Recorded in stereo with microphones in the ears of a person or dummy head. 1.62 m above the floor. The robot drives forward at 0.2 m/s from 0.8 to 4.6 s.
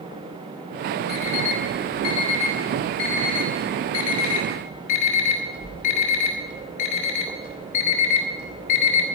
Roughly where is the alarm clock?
Left.